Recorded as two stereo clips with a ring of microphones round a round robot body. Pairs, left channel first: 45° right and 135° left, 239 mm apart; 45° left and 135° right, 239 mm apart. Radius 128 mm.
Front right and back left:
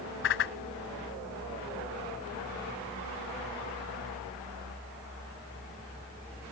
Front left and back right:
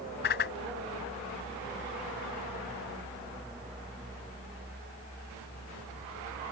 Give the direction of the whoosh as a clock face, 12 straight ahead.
12 o'clock.